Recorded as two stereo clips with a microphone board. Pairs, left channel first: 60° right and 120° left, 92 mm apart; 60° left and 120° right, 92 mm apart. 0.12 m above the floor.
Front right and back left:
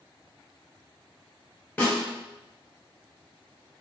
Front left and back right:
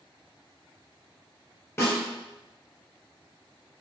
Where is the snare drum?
10° left, 1.9 m.